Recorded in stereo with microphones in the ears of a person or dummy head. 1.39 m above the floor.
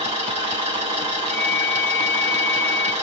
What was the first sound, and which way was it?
An engine running, 25° right (ahead or behind).